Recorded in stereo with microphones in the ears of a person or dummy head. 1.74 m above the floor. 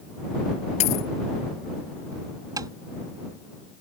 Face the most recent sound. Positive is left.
turn(degrees=-20)  # may be behind; listen again after turning